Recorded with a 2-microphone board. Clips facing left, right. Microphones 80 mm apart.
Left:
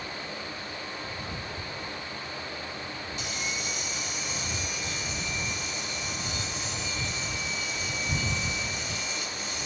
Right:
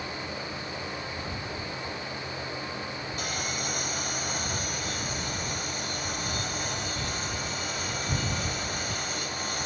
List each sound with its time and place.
3.2 s sawing: 55° right (ahead or behind)